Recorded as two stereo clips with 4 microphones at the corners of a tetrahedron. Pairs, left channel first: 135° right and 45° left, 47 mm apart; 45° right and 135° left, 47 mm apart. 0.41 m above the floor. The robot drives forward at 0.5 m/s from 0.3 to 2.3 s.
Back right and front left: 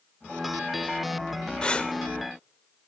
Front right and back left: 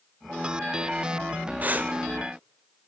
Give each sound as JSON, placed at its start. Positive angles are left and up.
{"t": 1.6, "sound": "breathing", "azimuth_deg": 165, "distance_m": 0.9}